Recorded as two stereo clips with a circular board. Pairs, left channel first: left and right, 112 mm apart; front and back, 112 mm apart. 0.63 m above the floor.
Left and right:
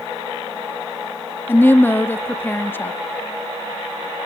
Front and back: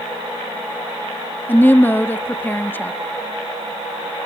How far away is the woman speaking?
About 0.6 m.